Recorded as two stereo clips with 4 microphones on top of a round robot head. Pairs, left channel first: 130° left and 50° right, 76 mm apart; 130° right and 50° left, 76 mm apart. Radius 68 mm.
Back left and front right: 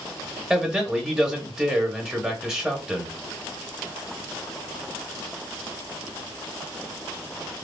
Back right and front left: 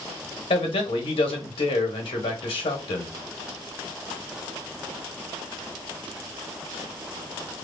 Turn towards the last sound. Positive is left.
turn(degrees=-135)